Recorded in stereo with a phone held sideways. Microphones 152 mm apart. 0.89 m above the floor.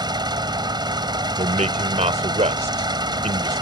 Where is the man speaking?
50° right (ahead or behind).